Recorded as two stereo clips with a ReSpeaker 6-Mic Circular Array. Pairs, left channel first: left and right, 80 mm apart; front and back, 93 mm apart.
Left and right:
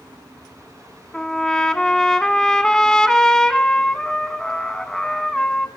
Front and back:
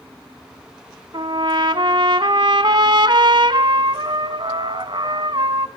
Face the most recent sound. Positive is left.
turn(degrees=170)